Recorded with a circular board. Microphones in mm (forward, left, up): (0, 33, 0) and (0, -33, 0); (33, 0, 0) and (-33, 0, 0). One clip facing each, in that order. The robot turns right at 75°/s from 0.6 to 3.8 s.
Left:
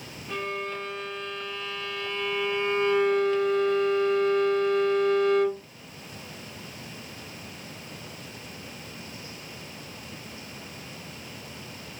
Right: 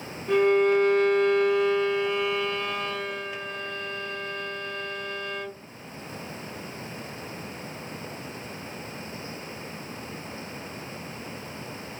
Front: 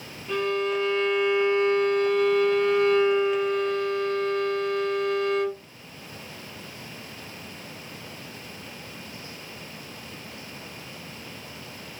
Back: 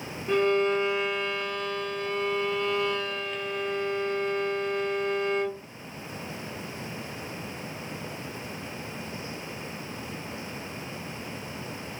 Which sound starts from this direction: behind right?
A violin, at 0.3 s.